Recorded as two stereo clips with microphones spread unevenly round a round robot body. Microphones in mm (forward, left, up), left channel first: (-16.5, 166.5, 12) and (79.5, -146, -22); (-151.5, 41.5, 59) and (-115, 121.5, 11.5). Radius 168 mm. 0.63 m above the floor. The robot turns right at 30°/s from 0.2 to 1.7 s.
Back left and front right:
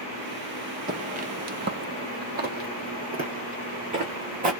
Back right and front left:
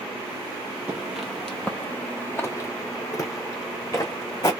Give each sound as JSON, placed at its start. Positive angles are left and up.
{"t": 0.9, "sound": "footsteps", "azimuth_deg": -90, "distance_m": 0.6}